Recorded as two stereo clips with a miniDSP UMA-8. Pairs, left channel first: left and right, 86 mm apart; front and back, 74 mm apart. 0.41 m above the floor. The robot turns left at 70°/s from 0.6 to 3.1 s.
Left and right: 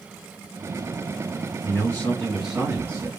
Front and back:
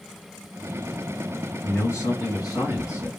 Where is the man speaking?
50° left, 2 m; by 3.1 s 50° right, 2 m.